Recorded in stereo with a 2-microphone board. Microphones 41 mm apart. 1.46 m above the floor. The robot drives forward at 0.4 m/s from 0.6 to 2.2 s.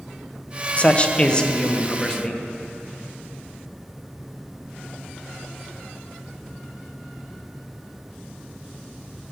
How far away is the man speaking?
About 0.6 m.